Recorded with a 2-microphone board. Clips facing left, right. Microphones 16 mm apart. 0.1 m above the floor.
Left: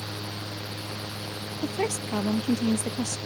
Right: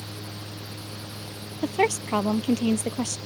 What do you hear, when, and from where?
1.6 s a woman speaking: 45° right (ahead or behind)